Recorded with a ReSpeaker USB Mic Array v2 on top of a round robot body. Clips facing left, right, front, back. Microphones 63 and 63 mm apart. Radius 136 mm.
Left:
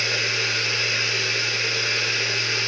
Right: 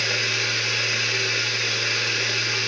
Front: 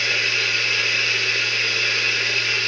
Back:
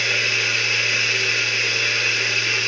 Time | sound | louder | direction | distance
0.0 | running water | even, back 1 dB | 100° right | 1.5 m